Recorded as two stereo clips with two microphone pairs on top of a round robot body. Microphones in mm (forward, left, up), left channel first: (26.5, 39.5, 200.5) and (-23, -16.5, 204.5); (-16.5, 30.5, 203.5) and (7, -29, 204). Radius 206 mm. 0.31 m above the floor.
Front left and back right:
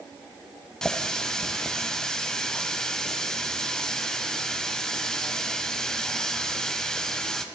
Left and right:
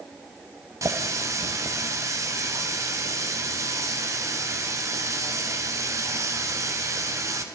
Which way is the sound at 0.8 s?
30° right.